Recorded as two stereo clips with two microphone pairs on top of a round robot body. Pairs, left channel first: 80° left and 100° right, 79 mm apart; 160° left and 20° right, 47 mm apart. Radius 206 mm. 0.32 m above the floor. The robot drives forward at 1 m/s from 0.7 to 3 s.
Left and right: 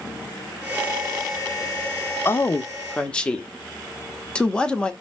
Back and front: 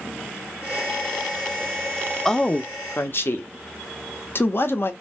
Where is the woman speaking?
80° left, 0.9 m; by 4.9 s 155° left, 1.1 m.